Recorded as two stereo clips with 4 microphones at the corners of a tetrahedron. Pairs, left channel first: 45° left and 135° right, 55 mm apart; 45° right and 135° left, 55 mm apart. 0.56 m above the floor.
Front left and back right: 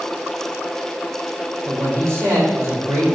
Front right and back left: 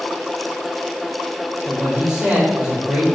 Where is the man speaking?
150° right, 2.5 m.